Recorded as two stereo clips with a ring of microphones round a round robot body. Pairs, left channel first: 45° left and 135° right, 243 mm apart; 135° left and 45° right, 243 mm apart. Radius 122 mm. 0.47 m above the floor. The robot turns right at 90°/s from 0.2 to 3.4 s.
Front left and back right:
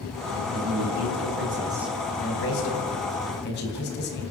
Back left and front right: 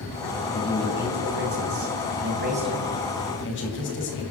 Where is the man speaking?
165° right, 3.5 m; by 4.2 s 90° left, 3.5 m.